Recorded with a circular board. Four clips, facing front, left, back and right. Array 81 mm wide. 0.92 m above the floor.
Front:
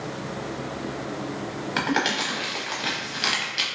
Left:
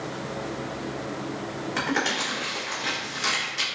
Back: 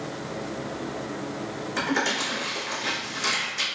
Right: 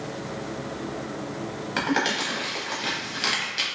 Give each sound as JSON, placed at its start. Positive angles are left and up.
{"t": 1.8, "sound": "crumpling", "azimuth_deg": -25, "distance_m": 0.9}